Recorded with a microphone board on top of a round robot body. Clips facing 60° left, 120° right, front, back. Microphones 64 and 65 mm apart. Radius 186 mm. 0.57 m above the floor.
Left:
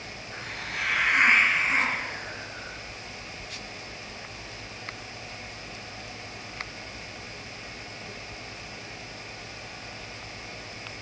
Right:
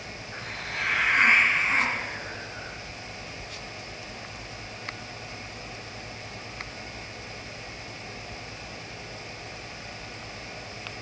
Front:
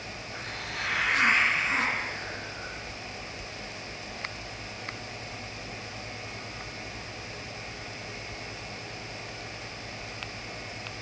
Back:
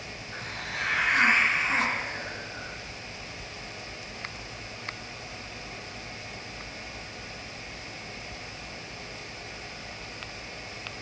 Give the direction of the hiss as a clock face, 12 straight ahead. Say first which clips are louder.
Even, back 2 dB; 7 o'clock.